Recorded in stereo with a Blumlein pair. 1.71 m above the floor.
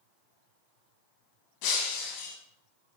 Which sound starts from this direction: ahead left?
Breaking glass, at 1.6 s.